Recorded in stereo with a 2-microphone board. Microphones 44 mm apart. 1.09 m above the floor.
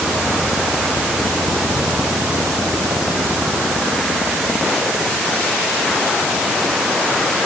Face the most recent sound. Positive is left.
No sound to turn to.